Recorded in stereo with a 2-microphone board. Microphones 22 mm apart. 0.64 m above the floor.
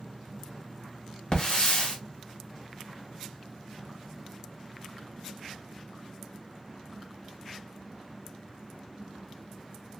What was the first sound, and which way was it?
A hiss, 40° left (ahead or behind).